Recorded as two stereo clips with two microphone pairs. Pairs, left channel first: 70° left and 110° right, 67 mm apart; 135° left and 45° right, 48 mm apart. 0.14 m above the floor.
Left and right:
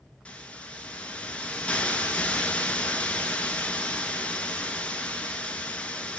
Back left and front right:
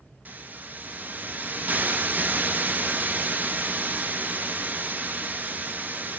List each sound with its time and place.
0.2 s a hiss: straight ahead, 0.6 m